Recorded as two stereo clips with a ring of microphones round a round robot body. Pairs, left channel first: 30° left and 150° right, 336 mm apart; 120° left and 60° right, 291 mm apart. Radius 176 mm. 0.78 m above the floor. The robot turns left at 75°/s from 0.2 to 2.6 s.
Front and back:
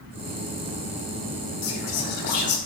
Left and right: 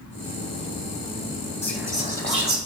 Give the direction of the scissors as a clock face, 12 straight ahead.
No scissors in this recording.